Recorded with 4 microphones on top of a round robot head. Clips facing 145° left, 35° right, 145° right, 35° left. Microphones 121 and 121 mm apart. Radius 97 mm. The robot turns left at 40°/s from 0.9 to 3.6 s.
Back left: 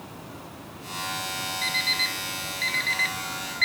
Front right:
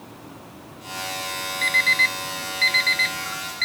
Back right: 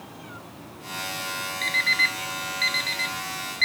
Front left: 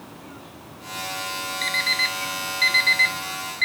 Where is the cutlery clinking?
I don't hear cutlery clinking.